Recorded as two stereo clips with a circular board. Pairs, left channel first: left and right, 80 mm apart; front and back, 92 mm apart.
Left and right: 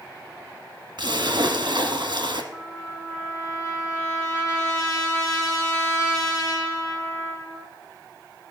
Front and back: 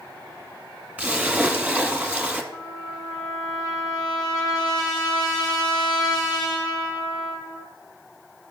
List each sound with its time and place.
1.0 s a splash: 105° right, 1.2 m
2.5 s a trumpet: 45° left, 3.5 m